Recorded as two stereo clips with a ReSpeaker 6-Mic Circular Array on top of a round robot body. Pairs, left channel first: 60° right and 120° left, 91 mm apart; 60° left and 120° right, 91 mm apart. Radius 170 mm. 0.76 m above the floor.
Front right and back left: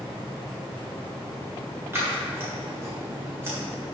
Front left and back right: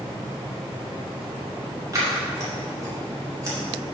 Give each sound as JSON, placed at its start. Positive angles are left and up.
{"t": 1.9, "sound": "scissors", "azimuth_deg": -175, "distance_m": 3.5}